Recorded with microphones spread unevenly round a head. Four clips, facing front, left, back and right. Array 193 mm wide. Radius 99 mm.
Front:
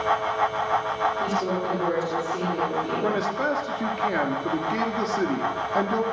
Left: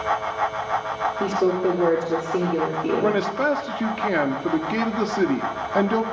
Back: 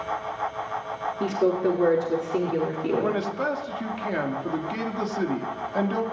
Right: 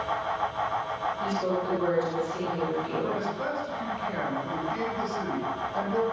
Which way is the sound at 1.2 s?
110° left.